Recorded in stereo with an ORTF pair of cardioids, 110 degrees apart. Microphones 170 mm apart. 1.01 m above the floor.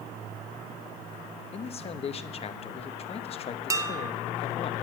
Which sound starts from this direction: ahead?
Dishes clattering, at 3.7 s.